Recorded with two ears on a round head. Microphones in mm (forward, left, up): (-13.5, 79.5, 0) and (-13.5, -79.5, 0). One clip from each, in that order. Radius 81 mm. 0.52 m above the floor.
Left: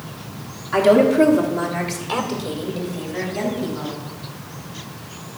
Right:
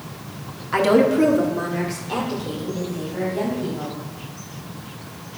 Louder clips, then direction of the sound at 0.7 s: Left 3 dB; 20° right (ahead or behind).